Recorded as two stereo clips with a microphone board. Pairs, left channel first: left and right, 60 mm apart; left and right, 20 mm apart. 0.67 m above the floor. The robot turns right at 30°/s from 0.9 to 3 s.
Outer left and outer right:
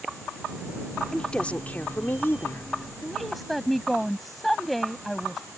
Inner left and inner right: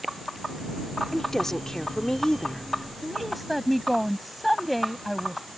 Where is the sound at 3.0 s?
Centre (ahead or behind).